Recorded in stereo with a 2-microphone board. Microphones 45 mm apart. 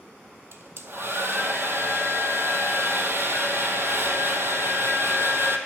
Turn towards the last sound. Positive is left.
turn(degrees=-60)  # may be behind; listen again after turning